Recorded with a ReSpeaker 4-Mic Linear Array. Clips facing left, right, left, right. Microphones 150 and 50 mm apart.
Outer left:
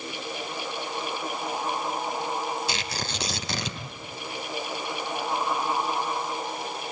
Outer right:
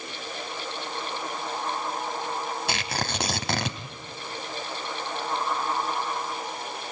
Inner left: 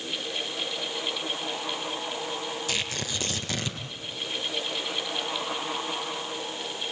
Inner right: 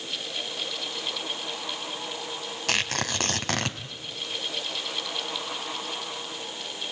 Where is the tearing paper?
60° right (ahead or behind), 1.8 m.